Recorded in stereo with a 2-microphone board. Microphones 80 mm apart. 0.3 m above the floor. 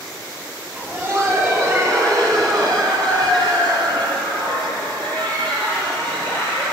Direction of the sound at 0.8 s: 20° right (ahead or behind).